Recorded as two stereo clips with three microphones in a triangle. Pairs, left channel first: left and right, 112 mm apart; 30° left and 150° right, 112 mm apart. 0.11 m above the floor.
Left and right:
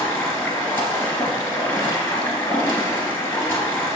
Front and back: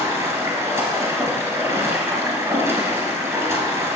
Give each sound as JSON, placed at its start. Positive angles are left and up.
{"t": 0.0, "sound": "running water", "azimuth_deg": 155, "distance_m": 1.6}